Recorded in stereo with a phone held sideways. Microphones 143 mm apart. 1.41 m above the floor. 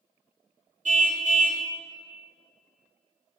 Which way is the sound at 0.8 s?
60° right (ahead or behind).